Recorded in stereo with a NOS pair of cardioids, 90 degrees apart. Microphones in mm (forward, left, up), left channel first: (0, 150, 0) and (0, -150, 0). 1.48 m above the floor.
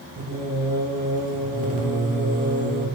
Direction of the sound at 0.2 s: 25° right.